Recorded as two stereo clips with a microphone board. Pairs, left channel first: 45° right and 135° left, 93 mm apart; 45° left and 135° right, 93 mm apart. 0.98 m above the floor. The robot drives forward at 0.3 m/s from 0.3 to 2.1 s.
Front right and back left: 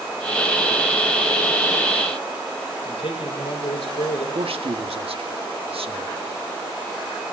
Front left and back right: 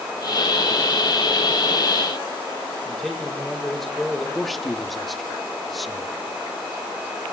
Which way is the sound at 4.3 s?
135° left.